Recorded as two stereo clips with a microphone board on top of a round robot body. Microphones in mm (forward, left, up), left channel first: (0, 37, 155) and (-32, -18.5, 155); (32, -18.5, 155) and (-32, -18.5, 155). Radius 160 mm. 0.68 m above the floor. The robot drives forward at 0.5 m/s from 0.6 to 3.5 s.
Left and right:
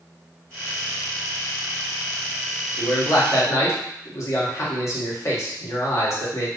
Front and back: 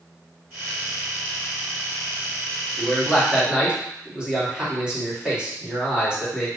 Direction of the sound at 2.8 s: 95° left.